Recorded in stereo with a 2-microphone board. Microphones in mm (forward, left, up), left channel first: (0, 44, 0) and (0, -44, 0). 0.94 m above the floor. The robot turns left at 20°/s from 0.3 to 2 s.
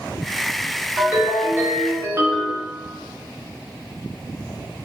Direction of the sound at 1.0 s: 10° right (ahead or behind).